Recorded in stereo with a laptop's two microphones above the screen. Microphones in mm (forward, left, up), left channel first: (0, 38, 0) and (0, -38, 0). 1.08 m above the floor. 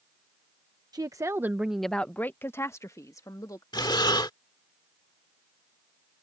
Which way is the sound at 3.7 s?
70° left (ahead or behind).